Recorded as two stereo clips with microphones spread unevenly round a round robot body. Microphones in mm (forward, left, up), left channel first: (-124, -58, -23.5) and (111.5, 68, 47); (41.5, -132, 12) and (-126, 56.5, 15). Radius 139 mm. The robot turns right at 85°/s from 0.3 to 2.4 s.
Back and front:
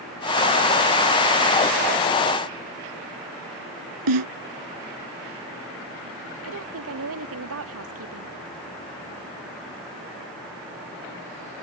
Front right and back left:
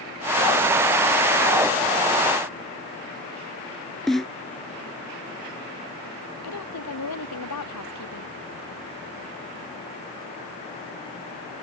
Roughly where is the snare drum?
Ahead left.